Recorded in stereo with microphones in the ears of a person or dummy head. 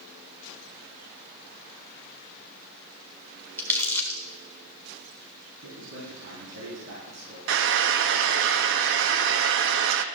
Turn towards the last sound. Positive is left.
turn(degrees=-70)  # may be behind; listen again after turning